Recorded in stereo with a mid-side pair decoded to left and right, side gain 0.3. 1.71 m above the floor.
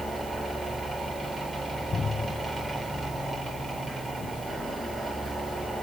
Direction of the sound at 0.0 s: 35° right.